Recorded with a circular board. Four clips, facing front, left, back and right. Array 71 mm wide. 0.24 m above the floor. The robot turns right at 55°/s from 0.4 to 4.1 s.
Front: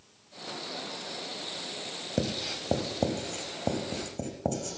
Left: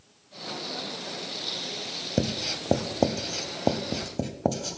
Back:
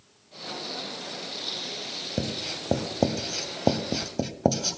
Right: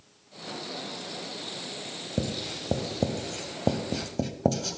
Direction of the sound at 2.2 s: 80° left.